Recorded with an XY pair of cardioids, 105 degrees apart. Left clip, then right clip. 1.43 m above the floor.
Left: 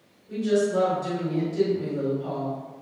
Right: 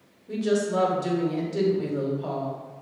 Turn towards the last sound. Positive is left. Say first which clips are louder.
# left 1 dB
turn(degrees=-60)